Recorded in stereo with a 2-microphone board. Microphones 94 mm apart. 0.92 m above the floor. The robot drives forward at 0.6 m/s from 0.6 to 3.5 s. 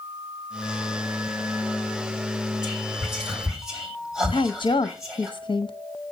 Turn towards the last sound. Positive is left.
turn(degrees=65)  # may be behind; listen again after turning